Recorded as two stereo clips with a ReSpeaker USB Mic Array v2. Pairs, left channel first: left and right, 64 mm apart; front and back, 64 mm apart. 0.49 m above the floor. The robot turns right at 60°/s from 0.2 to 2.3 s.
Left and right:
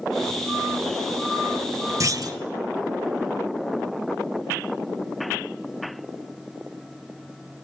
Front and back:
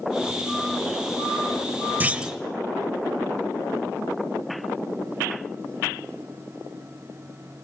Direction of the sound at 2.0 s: 120° right.